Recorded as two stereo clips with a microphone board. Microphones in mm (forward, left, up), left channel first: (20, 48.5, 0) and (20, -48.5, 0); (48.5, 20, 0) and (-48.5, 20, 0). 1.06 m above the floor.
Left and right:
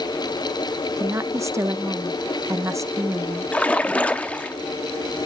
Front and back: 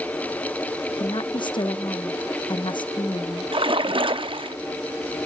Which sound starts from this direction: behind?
A splash, at 3.5 s.